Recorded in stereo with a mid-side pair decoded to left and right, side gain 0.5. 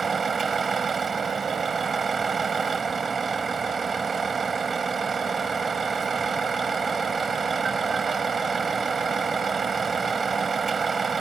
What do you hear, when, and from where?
0.0 s a vehicle: 30° right